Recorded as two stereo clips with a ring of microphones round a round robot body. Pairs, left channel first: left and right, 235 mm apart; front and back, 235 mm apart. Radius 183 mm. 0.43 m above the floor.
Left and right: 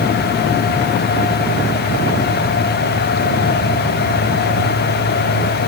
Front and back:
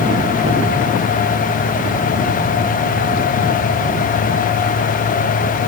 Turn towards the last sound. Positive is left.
No sound to turn to.